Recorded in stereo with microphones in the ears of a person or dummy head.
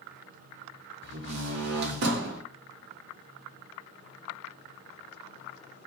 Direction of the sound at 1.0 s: 60° right (ahead or behind).